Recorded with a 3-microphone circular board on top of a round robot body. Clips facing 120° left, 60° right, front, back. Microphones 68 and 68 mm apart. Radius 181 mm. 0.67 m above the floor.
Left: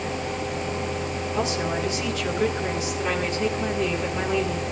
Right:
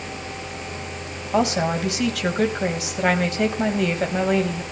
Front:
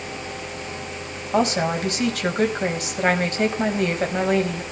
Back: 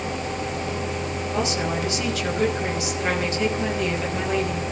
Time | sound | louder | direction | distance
1.3 | a woman speaking | right 7 dB, front 6 dB | 40° right | 5 m